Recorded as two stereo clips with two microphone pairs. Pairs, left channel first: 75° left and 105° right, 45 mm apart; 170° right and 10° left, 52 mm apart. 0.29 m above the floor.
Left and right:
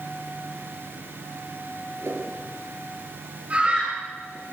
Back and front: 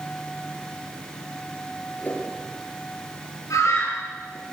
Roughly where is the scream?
Behind.